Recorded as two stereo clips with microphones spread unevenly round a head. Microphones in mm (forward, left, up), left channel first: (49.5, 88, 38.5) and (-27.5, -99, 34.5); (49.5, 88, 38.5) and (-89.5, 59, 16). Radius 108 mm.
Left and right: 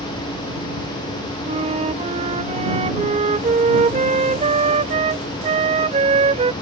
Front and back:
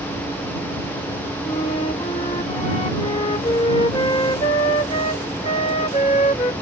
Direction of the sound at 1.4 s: 55° right.